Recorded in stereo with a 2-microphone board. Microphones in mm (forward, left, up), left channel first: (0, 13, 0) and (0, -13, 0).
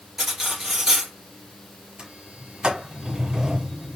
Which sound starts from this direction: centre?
Cutlery clinking, at 0.2 s.